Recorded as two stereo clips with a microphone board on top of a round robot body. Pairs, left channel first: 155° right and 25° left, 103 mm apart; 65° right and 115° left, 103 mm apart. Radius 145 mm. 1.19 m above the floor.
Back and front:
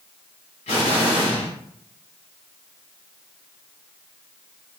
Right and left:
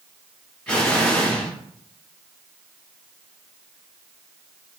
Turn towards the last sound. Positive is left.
turn(degrees=-150)